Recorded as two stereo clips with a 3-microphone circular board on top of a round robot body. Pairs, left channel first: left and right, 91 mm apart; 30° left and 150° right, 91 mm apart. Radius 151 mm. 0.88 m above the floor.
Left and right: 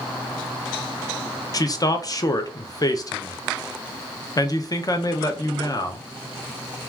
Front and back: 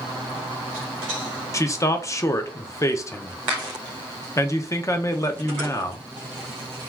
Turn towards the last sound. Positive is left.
turn(degrees=70)